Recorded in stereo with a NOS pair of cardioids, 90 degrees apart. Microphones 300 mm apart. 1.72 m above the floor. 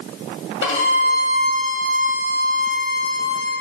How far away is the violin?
About 2.0 m.